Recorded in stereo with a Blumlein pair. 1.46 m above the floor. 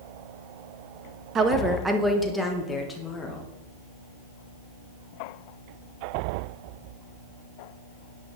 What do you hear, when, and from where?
1.4 s a woman speaking: 25° right, 0.9 m; by 3.5 s 15° left, 2 m